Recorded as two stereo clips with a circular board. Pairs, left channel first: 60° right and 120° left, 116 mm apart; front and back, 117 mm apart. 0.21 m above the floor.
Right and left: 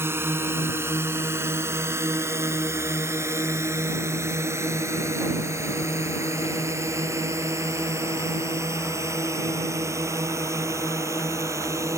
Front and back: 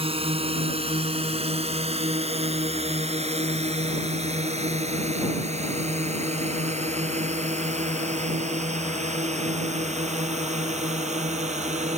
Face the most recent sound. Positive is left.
turn(degrees=-175)